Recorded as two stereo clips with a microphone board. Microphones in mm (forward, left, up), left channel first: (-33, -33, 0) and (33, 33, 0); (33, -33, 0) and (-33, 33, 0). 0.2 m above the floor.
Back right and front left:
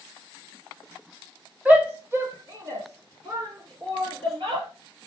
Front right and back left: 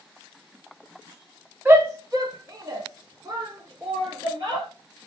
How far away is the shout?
About 1.4 m.